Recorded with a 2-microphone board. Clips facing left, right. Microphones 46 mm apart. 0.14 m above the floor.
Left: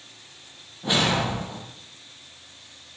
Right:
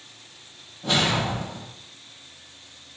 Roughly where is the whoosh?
Centre.